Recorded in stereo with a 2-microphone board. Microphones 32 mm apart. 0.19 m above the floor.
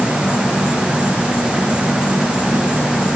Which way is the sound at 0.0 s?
85° left.